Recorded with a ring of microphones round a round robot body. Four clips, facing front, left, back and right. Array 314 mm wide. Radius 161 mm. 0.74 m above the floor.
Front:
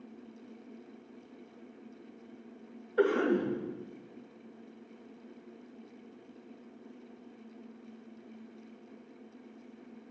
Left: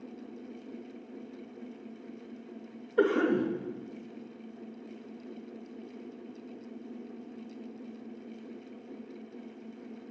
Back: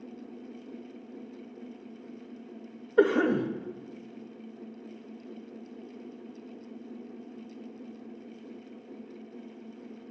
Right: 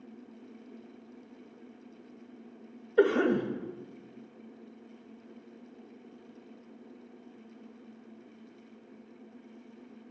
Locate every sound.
3.0 s a cough: 160° right, 1.4 m